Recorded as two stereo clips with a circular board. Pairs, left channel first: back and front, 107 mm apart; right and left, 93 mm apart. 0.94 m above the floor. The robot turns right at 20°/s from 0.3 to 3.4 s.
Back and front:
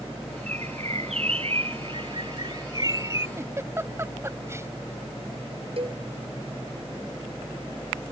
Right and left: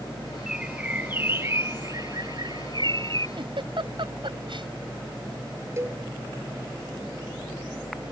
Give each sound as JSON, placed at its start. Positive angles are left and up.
{"t": 0.5, "sound": "a bird", "azimuth_deg": 5}
{"t": 3.4, "sound": "a giggle", "azimuth_deg": 65}
{"t": 5.8, "sound": "a cowbell", "azimuth_deg": 30}